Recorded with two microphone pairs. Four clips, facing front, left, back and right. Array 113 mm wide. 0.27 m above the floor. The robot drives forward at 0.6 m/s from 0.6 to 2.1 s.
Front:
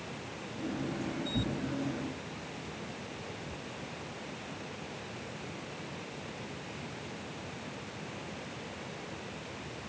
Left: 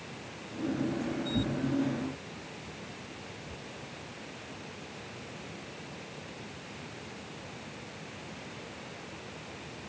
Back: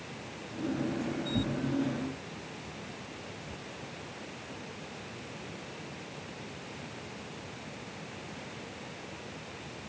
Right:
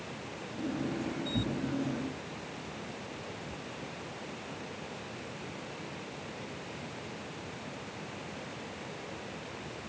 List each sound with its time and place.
1.3 s tearing paper: 130° right, 2.0 m; by 3.6 s 140° right, 2 m